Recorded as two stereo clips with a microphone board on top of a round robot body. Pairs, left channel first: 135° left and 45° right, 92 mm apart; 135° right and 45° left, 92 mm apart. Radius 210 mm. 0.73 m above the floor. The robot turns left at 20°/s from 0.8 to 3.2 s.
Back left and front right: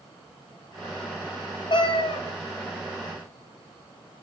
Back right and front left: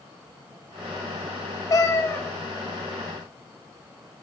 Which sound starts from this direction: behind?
A cat meowing, at 1.7 s.